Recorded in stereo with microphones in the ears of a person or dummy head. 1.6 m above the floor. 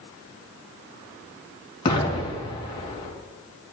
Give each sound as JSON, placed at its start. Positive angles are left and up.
{"t": 1.9, "sound": "an explosion", "side_deg": 25, "distance_m": 2.5}